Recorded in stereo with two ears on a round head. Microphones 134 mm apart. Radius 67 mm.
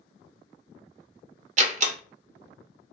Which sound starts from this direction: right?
A door slam, at 1.6 s.